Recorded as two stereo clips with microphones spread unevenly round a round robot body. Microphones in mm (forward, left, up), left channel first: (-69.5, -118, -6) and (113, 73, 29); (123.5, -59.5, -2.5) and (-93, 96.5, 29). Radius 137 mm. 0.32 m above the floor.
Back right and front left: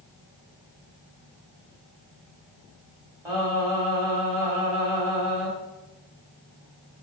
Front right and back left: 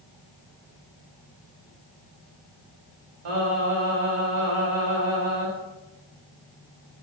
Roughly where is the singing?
Behind left.